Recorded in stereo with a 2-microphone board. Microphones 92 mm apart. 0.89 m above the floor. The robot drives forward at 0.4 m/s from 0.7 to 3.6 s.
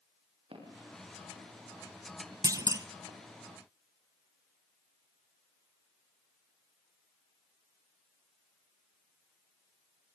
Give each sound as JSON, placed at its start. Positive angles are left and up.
{"t": 0.5, "sound": "footsteps", "side_deg": -80, "distance_m": 8.0}
{"t": 2.4, "sound": "a clunk", "side_deg": -40, "distance_m": 0.9}